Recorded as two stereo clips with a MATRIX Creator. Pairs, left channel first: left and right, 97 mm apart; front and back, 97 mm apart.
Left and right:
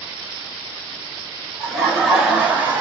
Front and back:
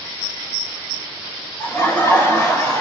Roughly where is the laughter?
Ahead.